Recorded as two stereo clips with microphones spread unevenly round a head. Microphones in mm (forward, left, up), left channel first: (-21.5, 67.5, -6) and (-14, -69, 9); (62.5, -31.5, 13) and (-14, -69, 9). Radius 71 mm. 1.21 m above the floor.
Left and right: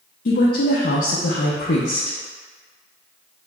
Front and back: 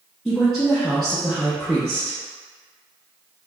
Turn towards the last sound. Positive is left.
turn(degrees=115)